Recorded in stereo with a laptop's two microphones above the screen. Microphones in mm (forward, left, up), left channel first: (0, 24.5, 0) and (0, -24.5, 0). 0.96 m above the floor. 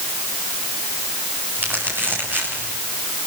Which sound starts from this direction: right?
Crumpling, at 1.6 s.